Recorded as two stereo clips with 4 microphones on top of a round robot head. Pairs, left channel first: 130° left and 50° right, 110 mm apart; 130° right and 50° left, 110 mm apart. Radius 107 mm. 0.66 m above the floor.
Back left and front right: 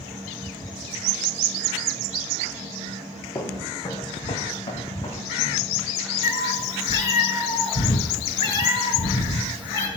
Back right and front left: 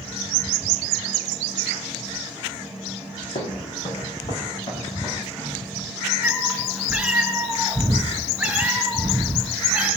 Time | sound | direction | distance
3.4 | footsteps | 165° right | 3 m
6.2 | a cat meowing | 130° left | 3 m